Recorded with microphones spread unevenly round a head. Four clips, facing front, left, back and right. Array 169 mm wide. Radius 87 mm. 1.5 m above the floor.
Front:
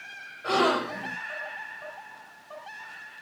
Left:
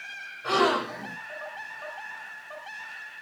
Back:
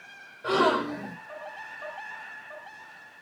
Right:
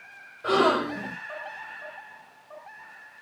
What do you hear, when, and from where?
0.4 s a gasp: 130° right, 2.5 m